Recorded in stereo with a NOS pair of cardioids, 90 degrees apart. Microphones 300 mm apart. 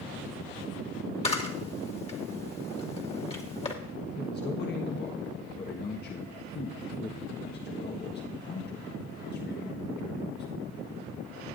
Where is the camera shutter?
20° left, 2 m.